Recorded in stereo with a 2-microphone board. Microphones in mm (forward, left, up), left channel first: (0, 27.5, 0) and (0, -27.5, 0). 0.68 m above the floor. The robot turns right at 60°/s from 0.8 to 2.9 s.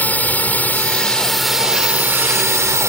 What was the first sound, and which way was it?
A drone, 145° left.